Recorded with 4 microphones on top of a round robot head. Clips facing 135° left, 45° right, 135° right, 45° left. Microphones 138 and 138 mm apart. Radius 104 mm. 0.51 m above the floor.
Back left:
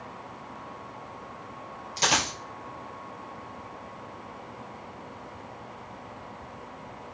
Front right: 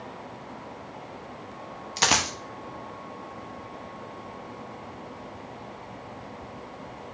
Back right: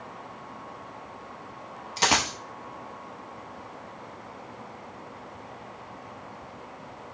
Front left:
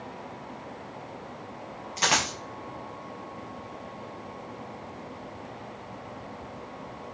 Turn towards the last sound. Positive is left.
turn(degrees=-75)